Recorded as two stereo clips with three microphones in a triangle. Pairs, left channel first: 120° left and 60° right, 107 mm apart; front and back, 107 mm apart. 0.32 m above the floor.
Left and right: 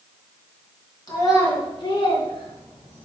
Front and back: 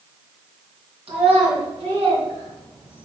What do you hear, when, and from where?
1.1 s a child speaking: 165° left, 3 m; by 3.0 s 140° left, 3 m